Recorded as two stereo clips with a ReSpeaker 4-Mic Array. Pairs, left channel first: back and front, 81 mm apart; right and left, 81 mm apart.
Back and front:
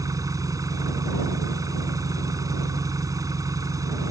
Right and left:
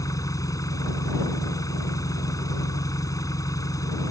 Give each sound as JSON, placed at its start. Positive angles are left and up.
{"t": 0.0, "sound": "an engine running", "azimuth_deg": -45}